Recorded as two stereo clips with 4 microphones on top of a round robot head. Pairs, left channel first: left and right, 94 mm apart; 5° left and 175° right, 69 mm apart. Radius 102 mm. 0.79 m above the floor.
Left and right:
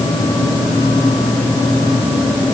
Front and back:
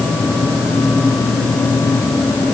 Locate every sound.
Only background noise.